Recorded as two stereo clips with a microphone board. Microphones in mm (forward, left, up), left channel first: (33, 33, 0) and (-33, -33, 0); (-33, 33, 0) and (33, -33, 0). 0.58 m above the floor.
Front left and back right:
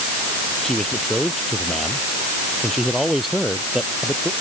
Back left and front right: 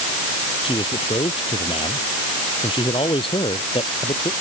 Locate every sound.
0.6 s a man speaking: 130° left; by 4.3 s 140° left